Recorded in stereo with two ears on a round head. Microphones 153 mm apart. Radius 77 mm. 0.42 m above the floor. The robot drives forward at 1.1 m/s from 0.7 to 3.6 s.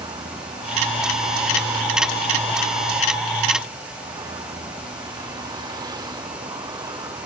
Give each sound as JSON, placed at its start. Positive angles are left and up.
{"t": 0.0, "sound": "a vehicle", "side_deg": -25}